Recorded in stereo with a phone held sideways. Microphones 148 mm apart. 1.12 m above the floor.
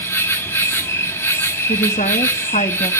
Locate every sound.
0.0 s an insect: 15° left (ahead or behind), 1.1 m
1.7 s a woman speaking: 55° left (ahead or behind), 1.2 m